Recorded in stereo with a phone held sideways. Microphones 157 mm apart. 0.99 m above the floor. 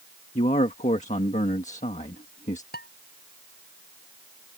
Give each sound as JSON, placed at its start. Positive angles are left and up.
{"t": 0.3, "sound": "a man speaking", "side_deg": 50}
{"t": 2.7, "sound": "dishes clattering", "side_deg": 90}